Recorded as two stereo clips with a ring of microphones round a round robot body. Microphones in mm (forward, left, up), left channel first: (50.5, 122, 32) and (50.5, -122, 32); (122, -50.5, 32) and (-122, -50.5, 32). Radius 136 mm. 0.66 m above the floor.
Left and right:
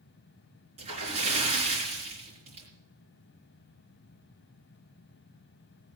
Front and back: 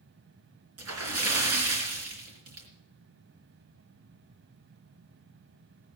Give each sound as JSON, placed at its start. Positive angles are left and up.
{"t": 0.8, "sound": "a splash", "azimuth_deg": -160, "distance_m": 3.5}